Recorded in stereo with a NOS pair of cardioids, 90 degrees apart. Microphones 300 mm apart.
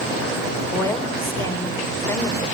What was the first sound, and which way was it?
A woman speaking, 10° left.